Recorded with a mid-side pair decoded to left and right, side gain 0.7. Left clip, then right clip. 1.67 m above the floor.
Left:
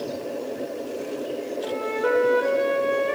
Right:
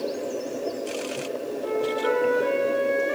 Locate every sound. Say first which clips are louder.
1.6 s a flute: even; 30° left, 4 m